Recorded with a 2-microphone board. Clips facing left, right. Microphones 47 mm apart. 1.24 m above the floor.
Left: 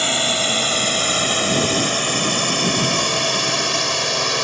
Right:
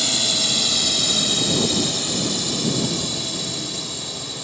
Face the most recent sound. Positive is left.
turn(degrees=75)  # may be behind; listen again after turning